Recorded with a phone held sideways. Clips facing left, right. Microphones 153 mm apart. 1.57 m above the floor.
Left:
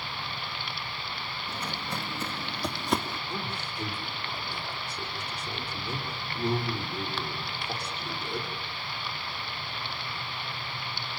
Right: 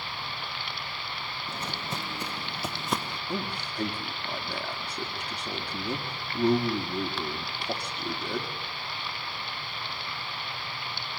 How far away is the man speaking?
About 4 m.